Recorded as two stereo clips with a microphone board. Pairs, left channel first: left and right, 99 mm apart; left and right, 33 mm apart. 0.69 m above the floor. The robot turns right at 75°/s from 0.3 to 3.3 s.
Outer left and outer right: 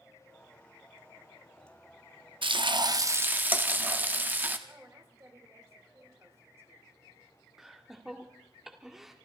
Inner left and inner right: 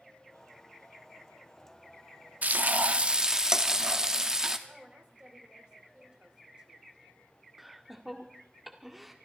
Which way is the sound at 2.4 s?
90° right.